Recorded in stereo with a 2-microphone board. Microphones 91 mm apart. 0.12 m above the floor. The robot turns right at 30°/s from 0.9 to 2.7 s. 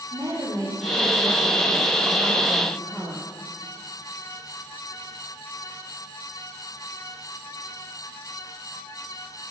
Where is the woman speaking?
40° right, 3 m; by 3.3 s 10° left, 3 m.